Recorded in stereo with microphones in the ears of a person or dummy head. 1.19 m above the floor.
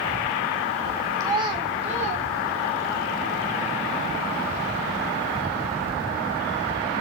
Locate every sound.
1.2 s a child speaking: 20° right (ahead or behind), 0.8 m; by 3.0 s 50° right (ahead or behind), 1.9 m